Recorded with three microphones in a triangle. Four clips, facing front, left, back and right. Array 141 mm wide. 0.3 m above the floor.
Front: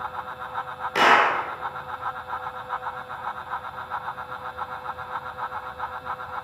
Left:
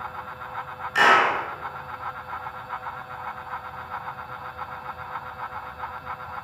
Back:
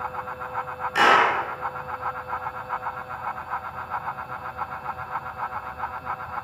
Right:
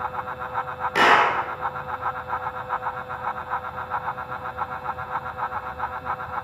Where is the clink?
I don't hear a clink.